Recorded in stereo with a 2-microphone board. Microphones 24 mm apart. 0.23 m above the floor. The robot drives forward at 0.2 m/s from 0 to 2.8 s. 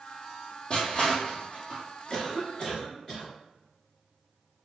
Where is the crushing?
30° left (ahead or behind), 1.4 m; by 1.8 s 25° left (ahead or behind), 1.6 m.